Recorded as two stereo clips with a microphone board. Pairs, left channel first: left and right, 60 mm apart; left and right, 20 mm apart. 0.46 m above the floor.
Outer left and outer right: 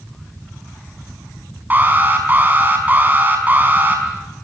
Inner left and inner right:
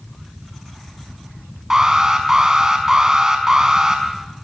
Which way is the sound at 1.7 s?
30° right (ahead or behind).